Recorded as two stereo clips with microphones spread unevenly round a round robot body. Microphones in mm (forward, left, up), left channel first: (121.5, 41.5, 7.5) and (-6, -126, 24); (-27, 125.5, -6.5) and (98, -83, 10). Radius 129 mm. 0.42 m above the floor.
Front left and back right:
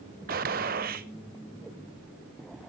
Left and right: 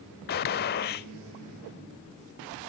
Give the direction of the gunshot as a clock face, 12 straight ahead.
6 o'clock.